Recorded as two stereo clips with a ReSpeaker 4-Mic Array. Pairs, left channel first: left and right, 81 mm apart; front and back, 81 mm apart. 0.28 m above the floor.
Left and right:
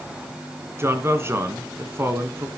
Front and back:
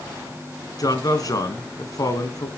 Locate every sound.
0.8 s a man speaking: 35° right, 3 m